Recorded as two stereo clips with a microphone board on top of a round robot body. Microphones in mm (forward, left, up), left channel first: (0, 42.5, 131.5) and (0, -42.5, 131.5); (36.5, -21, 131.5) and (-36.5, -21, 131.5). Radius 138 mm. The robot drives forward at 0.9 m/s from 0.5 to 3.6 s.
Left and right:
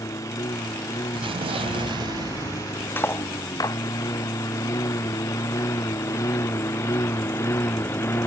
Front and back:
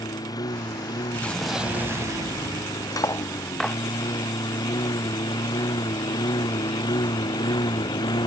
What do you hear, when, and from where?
0.0 s a lawn mower: 35° left; by 8.3 s 25° left
1.1 s an explosion: 70° right; by 2.9 s 150° right
3.0 s cutlery clinking: 30° left; by 3.8 s 80° left